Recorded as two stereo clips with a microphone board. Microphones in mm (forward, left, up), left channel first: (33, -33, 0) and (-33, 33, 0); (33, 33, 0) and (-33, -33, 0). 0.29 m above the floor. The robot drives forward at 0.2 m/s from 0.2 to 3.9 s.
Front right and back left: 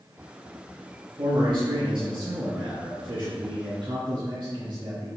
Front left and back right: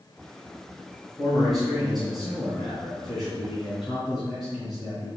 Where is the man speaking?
135° left, 3 m; by 5.1 s 140° left, 3.5 m.